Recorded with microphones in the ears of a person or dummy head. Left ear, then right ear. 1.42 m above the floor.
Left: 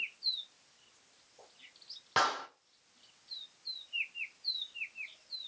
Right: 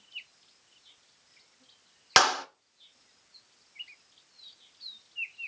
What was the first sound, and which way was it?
A clap, 75° right (ahead or behind).